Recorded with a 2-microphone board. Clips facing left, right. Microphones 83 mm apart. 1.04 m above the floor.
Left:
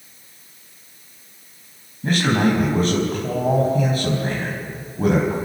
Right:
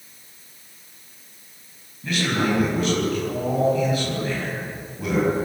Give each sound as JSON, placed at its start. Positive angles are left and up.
{"t": 2.0, "sound": "a man speaking", "side_deg": 40, "distance_m": 5.5}